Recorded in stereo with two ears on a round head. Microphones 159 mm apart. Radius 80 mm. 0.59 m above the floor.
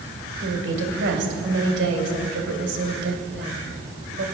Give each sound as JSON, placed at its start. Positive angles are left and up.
{"t": 0.4, "sound": "a woman speaking", "side_deg": -75, "distance_m": 3.0}